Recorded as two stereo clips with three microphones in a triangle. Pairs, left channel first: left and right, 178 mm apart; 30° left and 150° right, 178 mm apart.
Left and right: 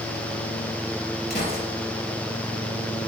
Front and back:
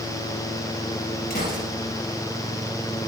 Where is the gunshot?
65° left, 3.5 m.